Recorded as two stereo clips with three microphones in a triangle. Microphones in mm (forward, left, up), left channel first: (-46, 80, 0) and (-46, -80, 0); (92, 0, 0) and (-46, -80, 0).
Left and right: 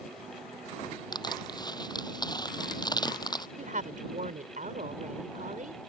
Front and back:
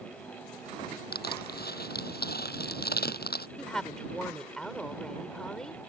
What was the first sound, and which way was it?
Crushing, 25° left.